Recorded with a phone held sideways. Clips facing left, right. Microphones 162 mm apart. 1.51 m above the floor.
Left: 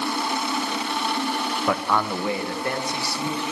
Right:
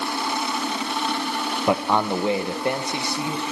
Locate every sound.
1.7 s a man speaking: 20° right (ahead or behind), 0.9 m